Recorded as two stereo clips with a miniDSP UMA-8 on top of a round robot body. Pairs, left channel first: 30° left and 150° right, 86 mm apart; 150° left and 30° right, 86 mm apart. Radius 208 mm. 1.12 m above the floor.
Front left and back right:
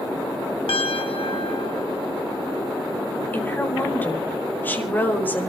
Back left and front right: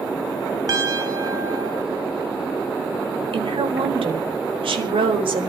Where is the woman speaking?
40° right, 4.5 m.